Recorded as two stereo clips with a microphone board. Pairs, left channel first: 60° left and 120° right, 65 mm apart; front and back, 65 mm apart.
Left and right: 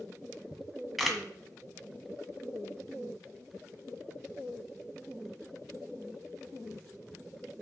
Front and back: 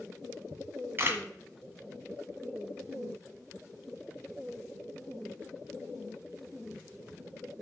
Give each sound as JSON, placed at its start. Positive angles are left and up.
{"t": 0.5, "sound": "a camera shutter", "azimuth_deg": 150, "distance_m": 1.6}